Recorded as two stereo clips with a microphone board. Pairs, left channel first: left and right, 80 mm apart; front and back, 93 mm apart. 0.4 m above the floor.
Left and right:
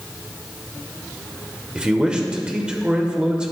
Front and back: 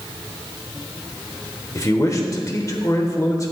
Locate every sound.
1.8 s a man speaking: 20° right, 1.0 m